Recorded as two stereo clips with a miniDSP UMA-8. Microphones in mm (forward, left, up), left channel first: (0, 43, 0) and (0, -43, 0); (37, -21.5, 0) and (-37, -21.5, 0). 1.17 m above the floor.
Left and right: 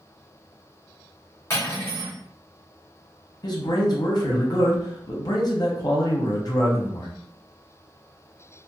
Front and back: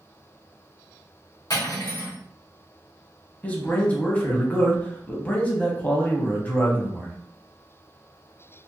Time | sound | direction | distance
1.5 | cutlery clinking | 30° left | 1.5 m
3.4 | a man speaking | 65° left | 0.8 m